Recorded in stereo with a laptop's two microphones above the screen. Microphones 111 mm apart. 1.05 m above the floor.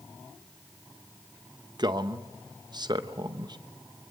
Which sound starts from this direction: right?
A man speaking, at 1.8 s.